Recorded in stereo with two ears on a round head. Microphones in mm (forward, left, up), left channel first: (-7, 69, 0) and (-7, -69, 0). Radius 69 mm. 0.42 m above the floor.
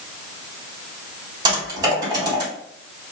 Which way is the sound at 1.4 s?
25° right (ahead or behind).